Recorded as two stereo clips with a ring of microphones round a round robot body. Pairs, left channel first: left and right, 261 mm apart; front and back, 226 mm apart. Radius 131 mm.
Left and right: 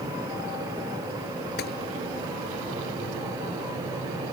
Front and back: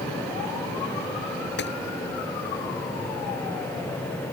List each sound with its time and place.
1.6 s a gunshot: 35° left